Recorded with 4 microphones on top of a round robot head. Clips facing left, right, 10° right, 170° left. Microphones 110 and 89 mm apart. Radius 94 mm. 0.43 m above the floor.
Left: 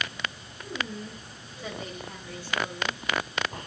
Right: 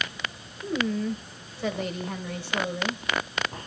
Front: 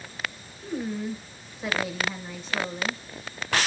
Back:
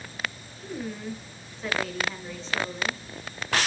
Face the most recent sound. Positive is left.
turn(degrees=-90)